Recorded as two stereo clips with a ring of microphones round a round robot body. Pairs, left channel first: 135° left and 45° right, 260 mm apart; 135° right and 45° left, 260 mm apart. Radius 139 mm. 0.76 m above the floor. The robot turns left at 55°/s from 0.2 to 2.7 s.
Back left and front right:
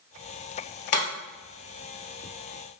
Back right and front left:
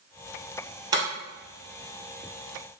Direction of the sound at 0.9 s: 120° left.